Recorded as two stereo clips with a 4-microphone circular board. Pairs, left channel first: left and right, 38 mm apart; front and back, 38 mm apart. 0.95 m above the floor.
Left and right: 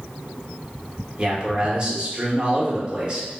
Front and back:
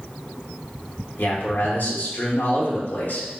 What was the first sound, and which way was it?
A man speaking, 30° right.